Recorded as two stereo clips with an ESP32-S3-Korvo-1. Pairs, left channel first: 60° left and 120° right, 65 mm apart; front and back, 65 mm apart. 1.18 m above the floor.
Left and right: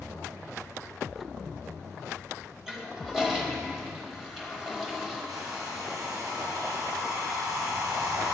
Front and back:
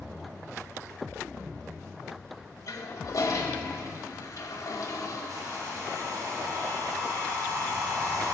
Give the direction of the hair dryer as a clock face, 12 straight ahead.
5 o'clock.